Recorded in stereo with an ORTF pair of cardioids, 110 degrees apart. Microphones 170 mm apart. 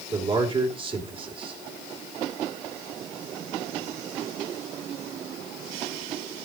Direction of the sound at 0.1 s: 30° right.